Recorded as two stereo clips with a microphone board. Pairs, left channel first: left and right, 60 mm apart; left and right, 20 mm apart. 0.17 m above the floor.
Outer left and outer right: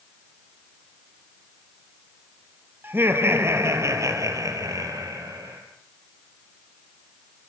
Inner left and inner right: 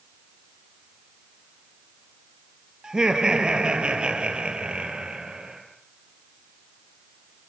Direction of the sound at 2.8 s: 35° right (ahead or behind).